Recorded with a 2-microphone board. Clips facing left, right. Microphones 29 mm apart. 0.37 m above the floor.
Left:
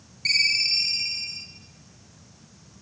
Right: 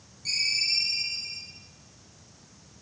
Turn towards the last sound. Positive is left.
turn(degrees=65)  # may be behind; listen again after turning